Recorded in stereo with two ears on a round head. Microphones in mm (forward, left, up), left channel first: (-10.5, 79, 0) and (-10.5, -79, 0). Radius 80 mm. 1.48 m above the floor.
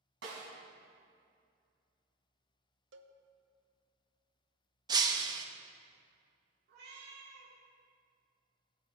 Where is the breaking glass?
25° right (ahead or behind), 0.8 m.